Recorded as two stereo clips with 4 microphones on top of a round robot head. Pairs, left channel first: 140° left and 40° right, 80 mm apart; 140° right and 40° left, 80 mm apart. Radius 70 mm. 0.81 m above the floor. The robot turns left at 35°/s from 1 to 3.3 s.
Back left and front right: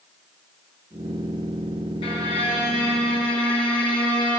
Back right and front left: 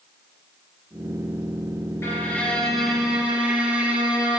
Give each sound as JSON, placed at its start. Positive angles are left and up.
{"t": 2.0, "sound": "a violin", "azimuth_deg": 165, "distance_m": 2.5}